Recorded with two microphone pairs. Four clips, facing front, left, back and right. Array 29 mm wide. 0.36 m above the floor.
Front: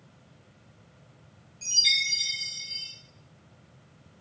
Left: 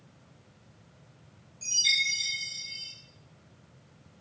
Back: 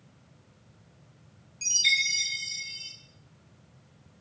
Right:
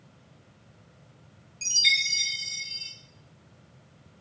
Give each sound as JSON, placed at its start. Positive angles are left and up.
{"t": 1.6, "sound": "a chime", "azimuth_deg": -130, "distance_m": 4.5}